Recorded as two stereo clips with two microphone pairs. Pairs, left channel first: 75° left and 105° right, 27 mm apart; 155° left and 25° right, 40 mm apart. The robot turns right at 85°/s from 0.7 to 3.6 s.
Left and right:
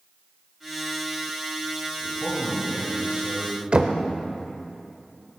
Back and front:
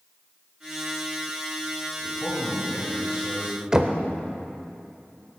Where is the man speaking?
140° left, 3.5 m; by 3.6 s 85° right, 3.5 m.